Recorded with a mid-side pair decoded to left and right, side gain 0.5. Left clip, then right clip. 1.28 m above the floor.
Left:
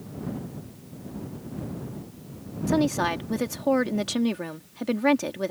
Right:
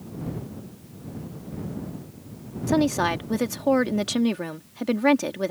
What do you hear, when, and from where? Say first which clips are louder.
2.7 s a woman speaking: right 2 dB; 15° right